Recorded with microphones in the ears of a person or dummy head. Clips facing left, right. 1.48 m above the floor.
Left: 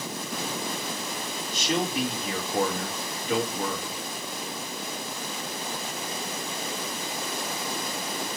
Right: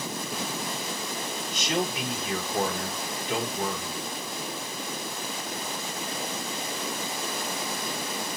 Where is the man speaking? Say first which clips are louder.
Left 2 dB; 45° left (ahead or behind), 5.5 m.